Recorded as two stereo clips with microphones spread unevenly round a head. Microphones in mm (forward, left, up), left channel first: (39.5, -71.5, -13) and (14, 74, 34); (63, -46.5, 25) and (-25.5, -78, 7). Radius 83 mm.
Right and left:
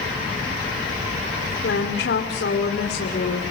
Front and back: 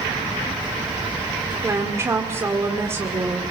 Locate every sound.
1.6 s a woman speaking: 95° right, 2.5 m